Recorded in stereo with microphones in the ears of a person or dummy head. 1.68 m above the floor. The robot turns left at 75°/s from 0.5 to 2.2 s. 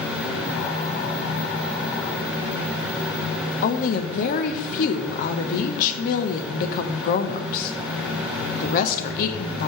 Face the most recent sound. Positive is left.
turn(degrees=45)  # may be behind; listen again after turning